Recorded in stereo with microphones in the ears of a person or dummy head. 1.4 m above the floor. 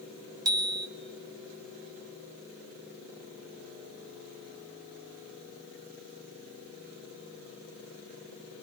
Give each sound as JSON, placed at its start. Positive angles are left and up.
{"t": 0.5, "sound": "a bicycle bell", "side_deg": -20, "distance_m": 4.5}